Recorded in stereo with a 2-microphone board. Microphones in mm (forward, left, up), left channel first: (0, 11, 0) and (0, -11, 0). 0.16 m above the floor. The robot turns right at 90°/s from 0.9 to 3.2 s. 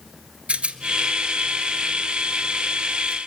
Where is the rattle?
65° right (ahead or behind), 1.4 m; by 3.2 s 50° left (ahead or behind), 1.4 m.